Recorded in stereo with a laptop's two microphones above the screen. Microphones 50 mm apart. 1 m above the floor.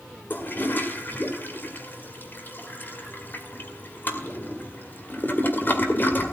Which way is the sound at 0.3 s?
40° left (ahead or behind).